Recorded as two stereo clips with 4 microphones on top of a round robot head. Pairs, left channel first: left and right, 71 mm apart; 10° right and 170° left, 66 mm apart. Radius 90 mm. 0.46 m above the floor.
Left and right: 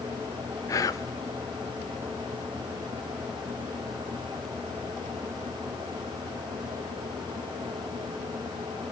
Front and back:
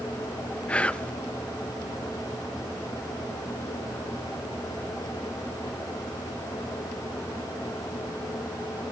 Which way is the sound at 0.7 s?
60° left.